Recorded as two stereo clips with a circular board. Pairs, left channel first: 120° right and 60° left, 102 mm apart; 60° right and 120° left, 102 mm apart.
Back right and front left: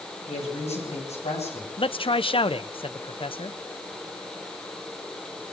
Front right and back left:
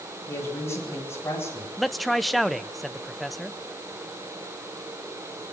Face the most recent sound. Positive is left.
turn(degrees=-150)